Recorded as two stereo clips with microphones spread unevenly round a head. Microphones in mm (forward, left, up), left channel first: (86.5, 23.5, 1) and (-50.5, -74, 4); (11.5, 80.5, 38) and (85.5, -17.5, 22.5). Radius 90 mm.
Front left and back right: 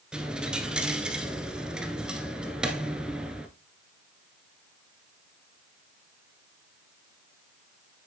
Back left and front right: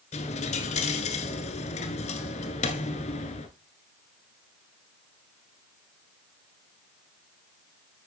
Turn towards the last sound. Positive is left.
turn(degrees=130)